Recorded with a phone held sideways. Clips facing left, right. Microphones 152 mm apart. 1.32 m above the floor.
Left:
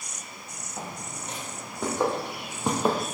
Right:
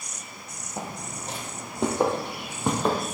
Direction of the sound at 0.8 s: 40° right (ahead or behind).